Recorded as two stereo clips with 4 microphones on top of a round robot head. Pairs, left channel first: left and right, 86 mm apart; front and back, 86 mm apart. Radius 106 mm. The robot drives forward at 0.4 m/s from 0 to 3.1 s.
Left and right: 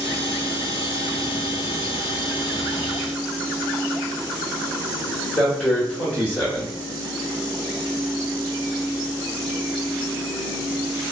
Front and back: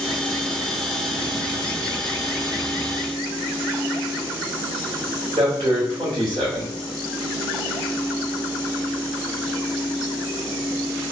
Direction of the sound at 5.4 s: 175° left.